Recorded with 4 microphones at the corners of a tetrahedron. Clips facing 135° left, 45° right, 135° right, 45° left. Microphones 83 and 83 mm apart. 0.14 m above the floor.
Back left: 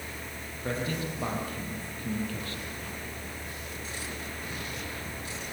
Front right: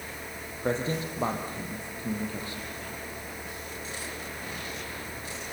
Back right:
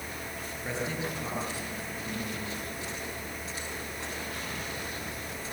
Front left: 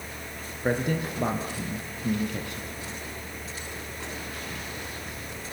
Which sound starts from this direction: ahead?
A man speaking, at 0.6 s.